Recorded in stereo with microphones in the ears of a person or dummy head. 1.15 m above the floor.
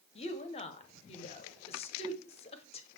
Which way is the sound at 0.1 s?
35° left (ahead or behind).